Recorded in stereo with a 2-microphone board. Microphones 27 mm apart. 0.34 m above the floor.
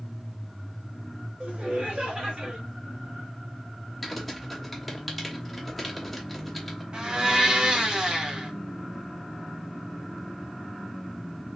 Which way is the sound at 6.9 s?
35° right (ahead or behind).